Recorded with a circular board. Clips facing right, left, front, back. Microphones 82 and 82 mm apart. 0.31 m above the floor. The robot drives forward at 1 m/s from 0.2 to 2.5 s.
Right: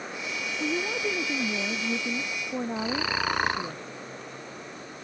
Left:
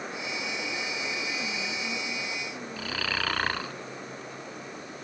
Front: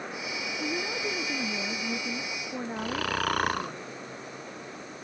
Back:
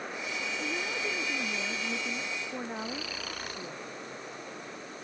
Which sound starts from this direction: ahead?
Snoring, at 2.8 s.